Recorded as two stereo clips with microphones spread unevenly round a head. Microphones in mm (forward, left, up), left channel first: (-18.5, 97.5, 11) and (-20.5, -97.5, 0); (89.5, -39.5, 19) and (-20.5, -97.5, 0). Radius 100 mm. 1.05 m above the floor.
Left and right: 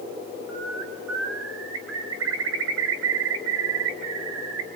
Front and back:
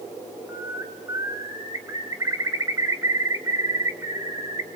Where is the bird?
90° right, 3.5 m.